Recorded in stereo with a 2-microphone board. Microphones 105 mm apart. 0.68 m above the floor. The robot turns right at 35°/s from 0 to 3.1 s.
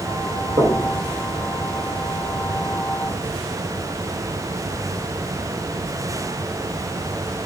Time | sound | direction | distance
0.6 | knocking | 40° right (ahead or behind) | 2 m